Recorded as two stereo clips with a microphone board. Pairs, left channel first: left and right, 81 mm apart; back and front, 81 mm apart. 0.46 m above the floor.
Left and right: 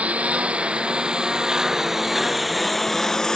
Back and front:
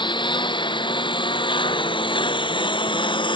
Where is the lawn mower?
165° right; by 3.4 s 170° left.